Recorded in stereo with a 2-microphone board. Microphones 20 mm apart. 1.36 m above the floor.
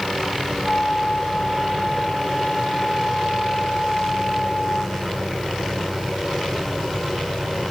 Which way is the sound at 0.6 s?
45° left (ahead or behind).